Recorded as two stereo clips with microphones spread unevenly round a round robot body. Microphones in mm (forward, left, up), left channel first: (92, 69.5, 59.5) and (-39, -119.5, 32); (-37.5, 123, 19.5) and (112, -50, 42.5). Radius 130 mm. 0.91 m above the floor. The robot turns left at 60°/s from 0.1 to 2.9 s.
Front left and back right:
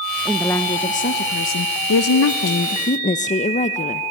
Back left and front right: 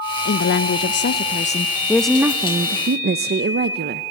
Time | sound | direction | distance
0.2 | a woman speaking | 155° left | 0.6 m